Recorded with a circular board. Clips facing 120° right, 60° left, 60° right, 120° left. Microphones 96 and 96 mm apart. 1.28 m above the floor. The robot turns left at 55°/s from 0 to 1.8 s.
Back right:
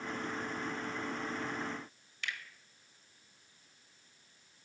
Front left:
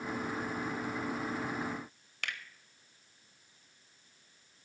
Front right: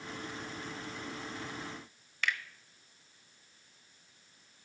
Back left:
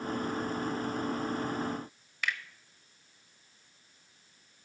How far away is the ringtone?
I don't hear a ringtone.